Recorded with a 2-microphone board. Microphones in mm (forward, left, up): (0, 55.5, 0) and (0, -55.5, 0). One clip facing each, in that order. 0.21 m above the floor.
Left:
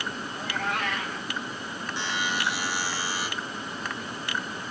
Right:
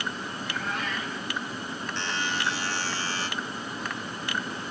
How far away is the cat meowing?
About 3.5 m.